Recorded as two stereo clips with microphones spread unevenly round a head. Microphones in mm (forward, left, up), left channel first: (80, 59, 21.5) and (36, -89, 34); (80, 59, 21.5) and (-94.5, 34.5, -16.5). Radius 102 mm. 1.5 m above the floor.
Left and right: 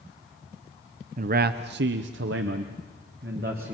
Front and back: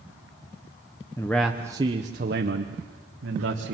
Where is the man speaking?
70° right, 0.9 m; by 3.7 s 155° right, 1.8 m.